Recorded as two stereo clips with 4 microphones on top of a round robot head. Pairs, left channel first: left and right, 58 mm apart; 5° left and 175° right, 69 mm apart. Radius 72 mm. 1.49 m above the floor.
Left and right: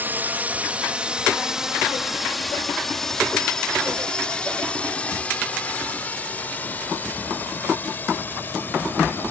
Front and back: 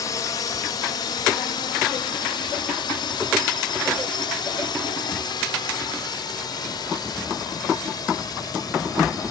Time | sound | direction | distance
0.0 | a drone | 35° right | ?